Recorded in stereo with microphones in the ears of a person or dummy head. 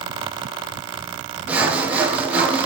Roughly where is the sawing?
Centre.